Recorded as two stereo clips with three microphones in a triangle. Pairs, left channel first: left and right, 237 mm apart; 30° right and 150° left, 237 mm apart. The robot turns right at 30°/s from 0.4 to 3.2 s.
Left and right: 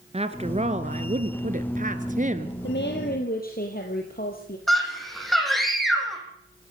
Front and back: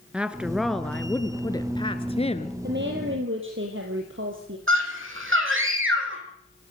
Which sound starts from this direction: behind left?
A woman speaking, at 2.6 s.